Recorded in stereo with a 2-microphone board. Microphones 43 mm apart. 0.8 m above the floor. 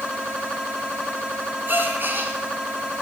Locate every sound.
1.7 s a gasp: 50° right (ahead or behind), 1.9 m